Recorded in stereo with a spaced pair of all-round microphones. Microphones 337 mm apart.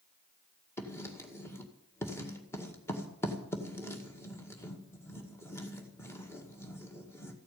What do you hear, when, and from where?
0.8 s writing: 5° left (ahead or behind), 2 m